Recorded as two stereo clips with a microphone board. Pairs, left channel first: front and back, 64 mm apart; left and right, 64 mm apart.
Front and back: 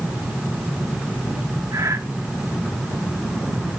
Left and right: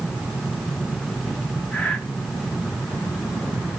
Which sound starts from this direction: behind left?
Breathing, at 1.7 s.